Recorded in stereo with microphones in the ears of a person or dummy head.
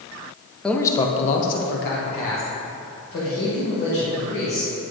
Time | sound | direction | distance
0.6 | a man speaking | 5° left (ahead or behind) | 0.5 m